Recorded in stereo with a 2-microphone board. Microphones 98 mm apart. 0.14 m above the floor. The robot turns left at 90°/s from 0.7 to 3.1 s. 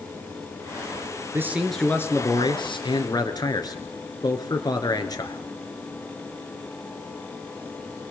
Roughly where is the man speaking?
Behind right.